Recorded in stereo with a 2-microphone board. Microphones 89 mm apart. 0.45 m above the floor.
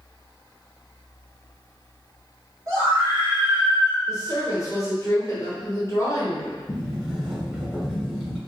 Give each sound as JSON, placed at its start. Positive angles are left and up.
{"t": 2.7, "sound": "a scream", "side_deg": -40, "distance_m": 1.9}
{"t": 4.1, "sound": "a woman speaking", "side_deg": 35, "distance_m": 1.0}
{"t": 6.7, "sound": "a sliding door", "side_deg": -10, "distance_m": 0.7}